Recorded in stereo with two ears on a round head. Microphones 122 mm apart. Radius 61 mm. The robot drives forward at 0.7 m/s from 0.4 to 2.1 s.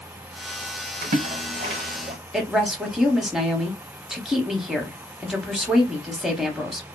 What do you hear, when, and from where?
1.0 s a splash: 65° right (ahead or behind), 0.8 m; by 2.2 s 35° right (ahead or behind), 1.3 m
2.3 s a woman speaking: 5° right (ahead or behind), 0.6 m